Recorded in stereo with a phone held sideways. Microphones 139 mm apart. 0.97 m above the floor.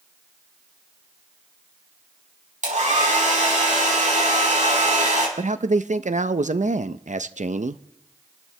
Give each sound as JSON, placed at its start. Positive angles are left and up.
{"t": 2.6, "sound": "a hair dryer", "side_deg": -60, "distance_m": 5.0}
{"t": 5.4, "sound": "a man speaking", "side_deg": -60, "distance_m": 0.6}